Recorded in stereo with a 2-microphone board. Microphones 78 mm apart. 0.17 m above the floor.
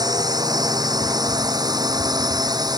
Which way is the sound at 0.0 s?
55° right (ahead or behind).